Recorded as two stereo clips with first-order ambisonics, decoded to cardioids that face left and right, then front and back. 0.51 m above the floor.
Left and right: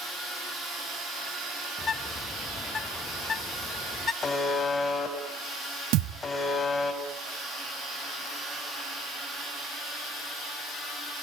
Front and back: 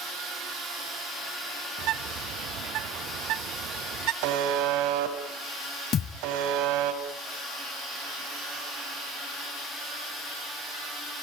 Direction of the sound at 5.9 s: 60° right.